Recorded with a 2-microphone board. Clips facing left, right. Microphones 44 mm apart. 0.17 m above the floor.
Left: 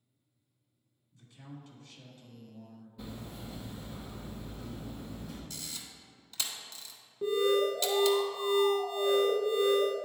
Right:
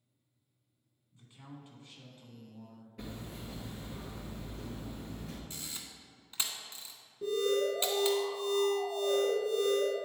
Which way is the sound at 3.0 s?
65° right (ahead or behind).